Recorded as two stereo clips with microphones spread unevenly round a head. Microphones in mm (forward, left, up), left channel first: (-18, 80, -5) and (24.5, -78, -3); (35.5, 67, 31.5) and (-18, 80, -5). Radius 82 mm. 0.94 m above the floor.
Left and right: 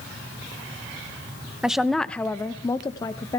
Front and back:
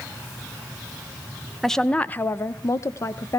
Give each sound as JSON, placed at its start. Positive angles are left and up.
{"t": 1.6, "sound": "a woman speaking", "azimuth_deg": -160, "distance_m": 0.8}